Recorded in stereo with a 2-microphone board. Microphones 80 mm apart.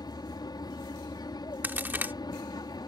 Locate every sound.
0.0 s an aircraft: 60° left (ahead or behind)
1.6 s a crack: 25° right (ahead or behind)